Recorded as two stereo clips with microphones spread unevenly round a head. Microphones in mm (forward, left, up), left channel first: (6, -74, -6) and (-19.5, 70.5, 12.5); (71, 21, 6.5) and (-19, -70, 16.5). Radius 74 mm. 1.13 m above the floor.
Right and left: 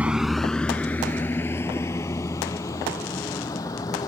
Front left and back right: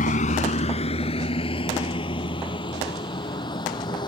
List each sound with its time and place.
0.0 s a vehicle: 20° left; by 4.1 s 10° right